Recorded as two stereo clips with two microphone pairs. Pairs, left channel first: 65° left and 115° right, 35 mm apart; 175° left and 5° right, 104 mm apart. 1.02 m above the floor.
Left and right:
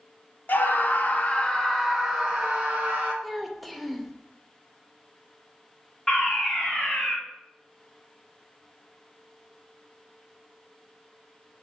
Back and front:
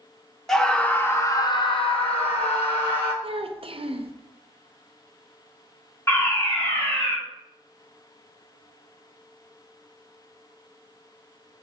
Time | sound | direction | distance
0.5 | a scream | 90° left | 0.8 m
3.2 | a child speaking | 25° right | 0.5 m
6.1 | a fire alarm | 130° left | 1.4 m